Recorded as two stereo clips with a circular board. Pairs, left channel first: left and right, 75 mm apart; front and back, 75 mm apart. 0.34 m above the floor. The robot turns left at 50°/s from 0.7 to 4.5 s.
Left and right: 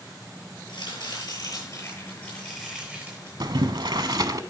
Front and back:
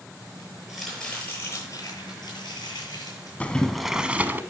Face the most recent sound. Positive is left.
turn(degrees=-125)